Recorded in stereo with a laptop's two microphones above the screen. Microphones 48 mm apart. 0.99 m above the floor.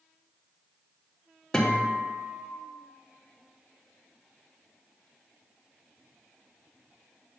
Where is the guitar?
15° left (ahead or behind), 1.4 m.